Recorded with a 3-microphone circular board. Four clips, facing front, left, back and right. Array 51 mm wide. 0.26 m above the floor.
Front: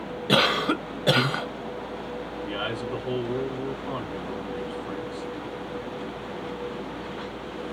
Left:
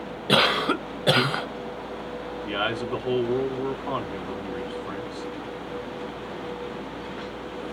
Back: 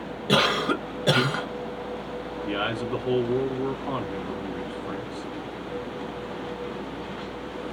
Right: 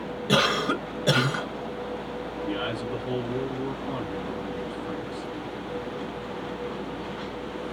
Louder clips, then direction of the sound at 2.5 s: Left 4 dB, back 3 dB; 120° left.